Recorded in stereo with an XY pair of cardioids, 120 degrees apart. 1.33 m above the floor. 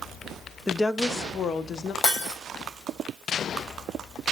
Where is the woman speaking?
15° left, 0.5 m; by 1.9 s 45° left, 1.1 m.